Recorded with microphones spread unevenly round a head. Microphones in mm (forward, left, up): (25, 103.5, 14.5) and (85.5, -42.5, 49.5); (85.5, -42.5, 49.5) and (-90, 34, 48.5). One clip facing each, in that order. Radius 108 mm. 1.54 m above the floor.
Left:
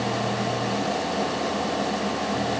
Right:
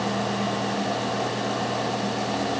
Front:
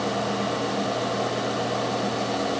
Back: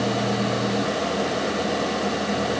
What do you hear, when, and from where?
Only background noise.